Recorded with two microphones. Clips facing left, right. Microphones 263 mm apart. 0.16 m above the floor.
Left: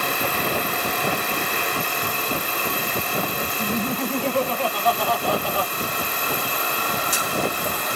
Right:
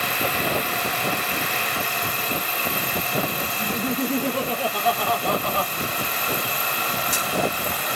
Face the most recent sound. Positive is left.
turn(degrees=15)  # may be behind; listen again after turning